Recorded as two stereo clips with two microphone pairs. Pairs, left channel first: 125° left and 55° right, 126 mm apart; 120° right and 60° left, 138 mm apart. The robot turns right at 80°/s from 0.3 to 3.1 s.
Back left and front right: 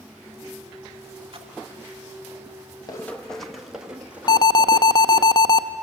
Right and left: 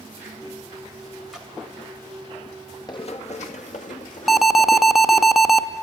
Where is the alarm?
140° left, 0.6 m.